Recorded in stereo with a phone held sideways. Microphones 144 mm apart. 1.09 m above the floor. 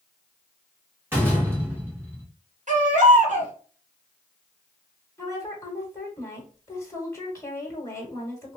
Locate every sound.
1.1 s a door slam: 15° right (ahead or behind), 1.3 m
2.7 s a baby crying: 60° right (ahead or behind), 1.5 m
5.2 s a woman speaking: 20° left (ahead or behind), 1.3 m